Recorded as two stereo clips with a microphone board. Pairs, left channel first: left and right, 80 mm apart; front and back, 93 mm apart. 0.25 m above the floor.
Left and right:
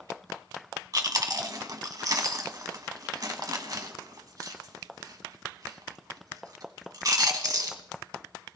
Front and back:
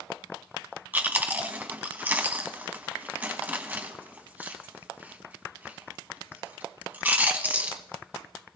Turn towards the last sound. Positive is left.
turn(degrees=-115)